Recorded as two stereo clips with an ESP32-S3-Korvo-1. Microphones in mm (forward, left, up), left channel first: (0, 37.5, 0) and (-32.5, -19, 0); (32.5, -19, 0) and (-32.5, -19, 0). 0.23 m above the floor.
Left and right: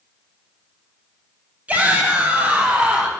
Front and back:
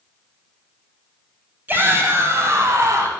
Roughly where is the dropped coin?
I don't hear a dropped coin.